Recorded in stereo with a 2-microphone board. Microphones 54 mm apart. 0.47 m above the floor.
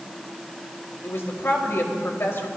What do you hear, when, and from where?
1.0 s a woman speaking: 50° left (ahead or behind), 2.5 m